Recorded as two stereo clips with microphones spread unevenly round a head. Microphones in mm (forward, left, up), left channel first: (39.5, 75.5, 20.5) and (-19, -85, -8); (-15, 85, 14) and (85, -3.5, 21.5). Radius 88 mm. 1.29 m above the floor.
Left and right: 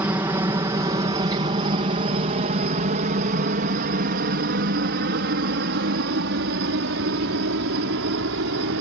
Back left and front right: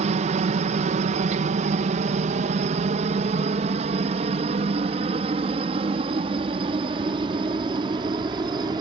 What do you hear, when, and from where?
0.0 s a helicopter: 40° right; by 8.8 s 110° right